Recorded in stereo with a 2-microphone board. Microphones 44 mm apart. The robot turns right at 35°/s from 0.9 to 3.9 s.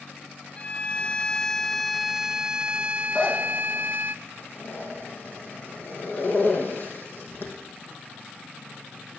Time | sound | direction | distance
0.6 | a violin | 145° left | 0.6 m
3.1 | a zipper | 25° left (ahead or behind) | 4.5 m